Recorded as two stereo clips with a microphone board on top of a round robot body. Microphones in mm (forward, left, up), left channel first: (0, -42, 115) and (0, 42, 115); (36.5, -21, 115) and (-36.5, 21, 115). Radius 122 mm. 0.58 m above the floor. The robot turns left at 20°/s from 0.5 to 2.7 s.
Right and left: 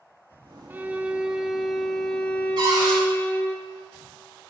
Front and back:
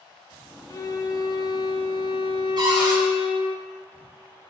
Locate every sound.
0.7 s a violin: 20° left, 0.9 m; by 3.6 s 20° right, 0.9 m
2.6 s a cupboard door: 125° left, 5.5 m; by 3.0 s 120° left, 5.5 m